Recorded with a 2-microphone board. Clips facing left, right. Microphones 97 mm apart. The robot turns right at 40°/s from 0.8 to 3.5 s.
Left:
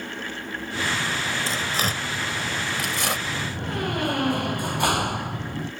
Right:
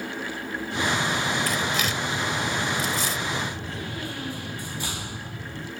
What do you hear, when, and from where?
1.5 s tearing paper: 30° left (ahead or behind); by 3.2 s 70° left (ahead or behind)
3.3 s a door slam: 55° left (ahead or behind); by 5.7 s 65° left (ahead or behind)